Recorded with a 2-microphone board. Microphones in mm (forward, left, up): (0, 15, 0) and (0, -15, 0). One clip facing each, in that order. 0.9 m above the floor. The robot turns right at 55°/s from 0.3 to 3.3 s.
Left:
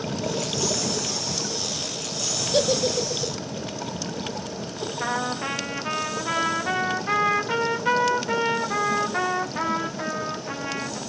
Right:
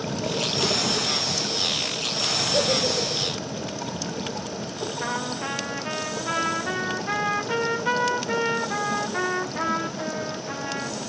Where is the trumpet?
10° left (ahead or behind), 0.7 m.